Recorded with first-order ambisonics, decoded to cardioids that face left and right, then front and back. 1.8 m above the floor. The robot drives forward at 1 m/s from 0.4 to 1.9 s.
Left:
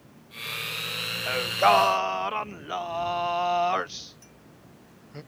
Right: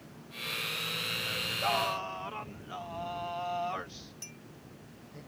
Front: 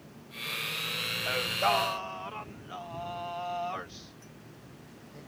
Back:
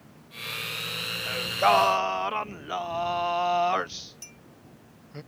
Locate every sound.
1.3 s singing: 70° left; by 5.2 s 135° left
4.2 s a clink: 145° right